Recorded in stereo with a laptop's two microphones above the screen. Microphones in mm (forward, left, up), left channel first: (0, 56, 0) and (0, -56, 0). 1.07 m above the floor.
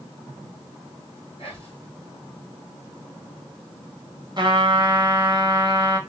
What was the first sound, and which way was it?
Whispering, 60° left (ahead or behind).